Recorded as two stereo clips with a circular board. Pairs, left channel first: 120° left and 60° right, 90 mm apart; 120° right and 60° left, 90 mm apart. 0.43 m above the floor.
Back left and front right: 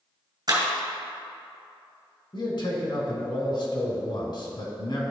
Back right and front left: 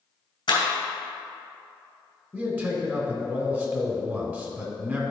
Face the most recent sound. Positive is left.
turn(degrees=125)